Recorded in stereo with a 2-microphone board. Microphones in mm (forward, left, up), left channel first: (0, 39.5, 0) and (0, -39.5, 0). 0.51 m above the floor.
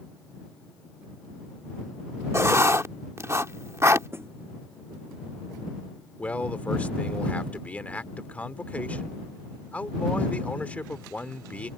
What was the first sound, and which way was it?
Writing, 40° right (ahead or behind).